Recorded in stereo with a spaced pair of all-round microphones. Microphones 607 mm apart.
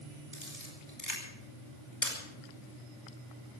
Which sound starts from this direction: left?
A camera shutter, at 0.3 s.